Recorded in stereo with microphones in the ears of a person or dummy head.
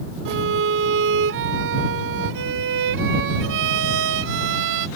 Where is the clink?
No clink in this recording.